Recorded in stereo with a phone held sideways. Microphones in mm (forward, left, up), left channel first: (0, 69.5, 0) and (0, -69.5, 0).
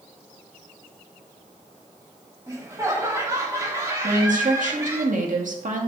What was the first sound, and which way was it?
Laughter, 20° right (ahead or behind).